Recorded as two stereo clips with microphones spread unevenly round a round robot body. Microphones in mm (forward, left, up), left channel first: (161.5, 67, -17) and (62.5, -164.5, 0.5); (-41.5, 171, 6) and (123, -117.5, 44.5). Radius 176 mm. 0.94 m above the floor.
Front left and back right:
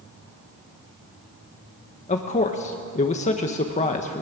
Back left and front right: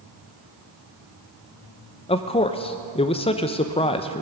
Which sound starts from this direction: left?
A man speaking, at 2.1 s.